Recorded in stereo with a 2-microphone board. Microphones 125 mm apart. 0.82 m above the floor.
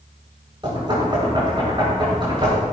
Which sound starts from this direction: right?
Knocking, at 0.6 s.